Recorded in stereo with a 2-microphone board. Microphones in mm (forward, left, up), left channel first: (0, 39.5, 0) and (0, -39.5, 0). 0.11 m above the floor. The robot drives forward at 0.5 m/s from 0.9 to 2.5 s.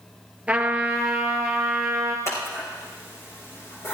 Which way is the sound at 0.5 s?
15° right (ahead or behind).